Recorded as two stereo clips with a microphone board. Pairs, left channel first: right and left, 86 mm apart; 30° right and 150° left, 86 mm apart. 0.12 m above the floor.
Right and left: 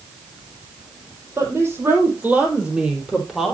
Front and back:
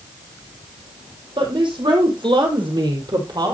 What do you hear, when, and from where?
1.4 s a woman speaking: 145° left, 5 m; by 3.5 s straight behind, 4.5 m